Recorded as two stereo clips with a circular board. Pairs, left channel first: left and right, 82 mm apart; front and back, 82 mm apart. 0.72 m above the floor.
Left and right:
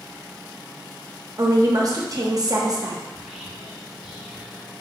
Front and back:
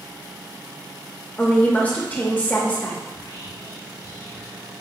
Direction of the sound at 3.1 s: 15° right.